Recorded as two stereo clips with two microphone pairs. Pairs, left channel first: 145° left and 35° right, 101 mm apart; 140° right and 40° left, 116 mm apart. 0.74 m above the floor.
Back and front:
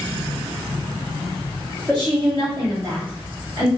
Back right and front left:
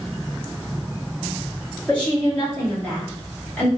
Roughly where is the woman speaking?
Ahead right.